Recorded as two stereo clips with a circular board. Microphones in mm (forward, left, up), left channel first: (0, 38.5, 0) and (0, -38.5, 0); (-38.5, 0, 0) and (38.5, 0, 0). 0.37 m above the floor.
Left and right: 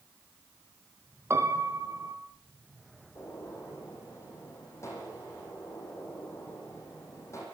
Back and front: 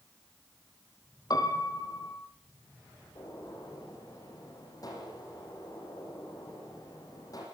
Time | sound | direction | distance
1.3 | a piano | 145° right | 3 m
3.1 | a gunshot | 140° left | 8.5 m